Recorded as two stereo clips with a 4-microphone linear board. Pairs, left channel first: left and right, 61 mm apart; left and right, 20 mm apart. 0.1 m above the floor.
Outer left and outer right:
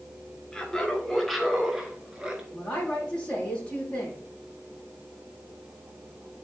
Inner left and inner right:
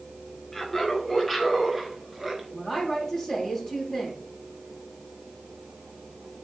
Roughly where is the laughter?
Centre.